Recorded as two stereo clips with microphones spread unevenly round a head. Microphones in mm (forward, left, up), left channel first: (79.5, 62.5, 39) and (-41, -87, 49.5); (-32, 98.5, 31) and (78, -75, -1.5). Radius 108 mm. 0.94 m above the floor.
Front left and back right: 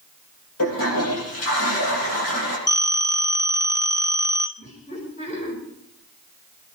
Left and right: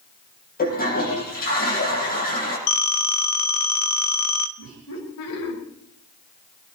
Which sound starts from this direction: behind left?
A phone ringing, at 2.7 s.